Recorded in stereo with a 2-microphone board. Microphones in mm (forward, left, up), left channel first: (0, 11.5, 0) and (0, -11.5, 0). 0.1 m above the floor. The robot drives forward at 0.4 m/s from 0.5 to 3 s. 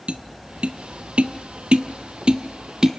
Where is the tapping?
55° right (ahead or behind), 0.7 m; by 2.9 s 40° right (ahead or behind), 0.9 m.